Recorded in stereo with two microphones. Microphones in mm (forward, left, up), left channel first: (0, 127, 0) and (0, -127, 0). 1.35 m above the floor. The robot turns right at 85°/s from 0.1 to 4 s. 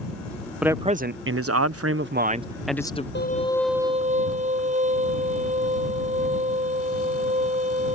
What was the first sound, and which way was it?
A man speaking, 175° right.